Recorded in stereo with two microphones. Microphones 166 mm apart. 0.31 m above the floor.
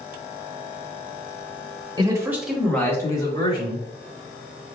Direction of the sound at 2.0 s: 25° right (ahead or behind).